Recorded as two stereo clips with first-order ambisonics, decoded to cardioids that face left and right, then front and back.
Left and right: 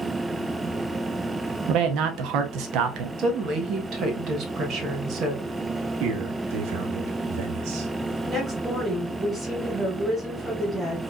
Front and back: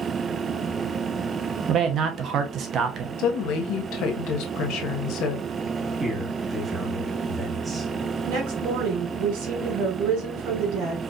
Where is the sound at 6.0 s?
95° right, 1.5 m.